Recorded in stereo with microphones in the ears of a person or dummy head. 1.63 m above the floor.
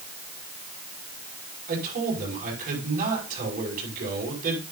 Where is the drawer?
No drawer in this recording.